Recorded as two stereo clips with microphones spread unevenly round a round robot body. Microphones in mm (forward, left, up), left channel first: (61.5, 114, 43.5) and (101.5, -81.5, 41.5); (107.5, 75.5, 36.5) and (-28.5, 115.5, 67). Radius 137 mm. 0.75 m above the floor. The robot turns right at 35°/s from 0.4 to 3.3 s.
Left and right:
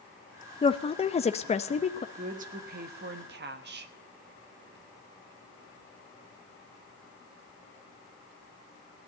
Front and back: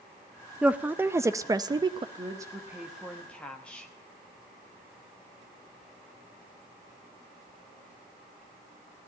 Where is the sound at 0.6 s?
65° left, 0.7 m; by 2.0 s 115° left, 0.7 m.